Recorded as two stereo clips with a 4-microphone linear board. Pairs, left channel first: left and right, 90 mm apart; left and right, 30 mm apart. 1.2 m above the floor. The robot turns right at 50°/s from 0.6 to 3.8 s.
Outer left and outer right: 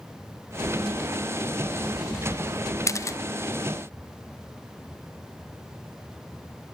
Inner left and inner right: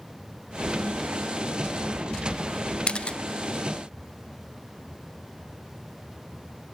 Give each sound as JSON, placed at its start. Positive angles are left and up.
{"t": 2.9, "sound": "a camera shutter", "side_deg": 35, "distance_m": 0.5}